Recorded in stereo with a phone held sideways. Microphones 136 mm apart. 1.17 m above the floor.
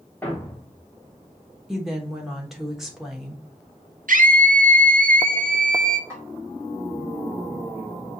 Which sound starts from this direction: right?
A scream, at 4.1 s.